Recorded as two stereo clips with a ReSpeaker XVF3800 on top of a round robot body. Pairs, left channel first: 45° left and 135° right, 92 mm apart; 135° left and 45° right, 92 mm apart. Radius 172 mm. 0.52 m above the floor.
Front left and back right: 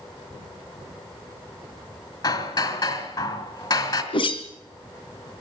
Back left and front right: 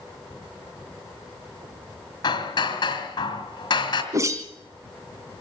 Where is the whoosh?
15° left, 2.5 m.